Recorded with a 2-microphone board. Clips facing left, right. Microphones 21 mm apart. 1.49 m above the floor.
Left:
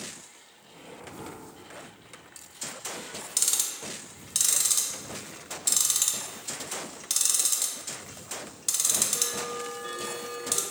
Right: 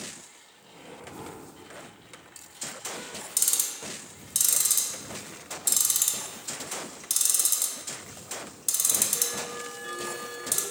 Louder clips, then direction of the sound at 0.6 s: Even; 5° right (ahead or behind).